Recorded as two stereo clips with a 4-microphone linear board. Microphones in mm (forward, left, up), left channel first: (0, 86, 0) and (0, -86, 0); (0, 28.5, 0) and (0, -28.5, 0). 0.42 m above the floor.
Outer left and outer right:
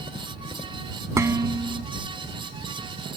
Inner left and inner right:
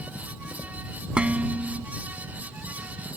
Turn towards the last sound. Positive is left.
turn(degrees=-20)  # may be behind; listen again after turning